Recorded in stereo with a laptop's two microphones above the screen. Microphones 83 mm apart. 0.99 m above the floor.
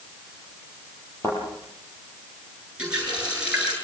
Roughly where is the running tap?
Centre.